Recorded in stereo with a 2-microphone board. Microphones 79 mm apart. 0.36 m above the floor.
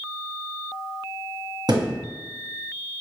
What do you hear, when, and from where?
1.7 s a thud: 60° right (ahead or behind), 1.8 m